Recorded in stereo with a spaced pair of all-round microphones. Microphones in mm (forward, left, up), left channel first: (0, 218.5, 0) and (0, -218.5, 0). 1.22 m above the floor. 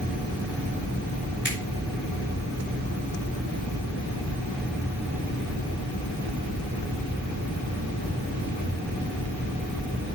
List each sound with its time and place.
1.4 s a finger snap: 25° left (ahead or behind), 4.5 m